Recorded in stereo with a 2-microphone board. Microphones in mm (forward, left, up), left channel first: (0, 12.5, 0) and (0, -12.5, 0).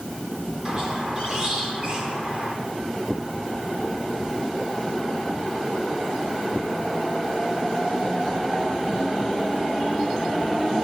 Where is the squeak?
35° right (ahead or behind), 9.5 m.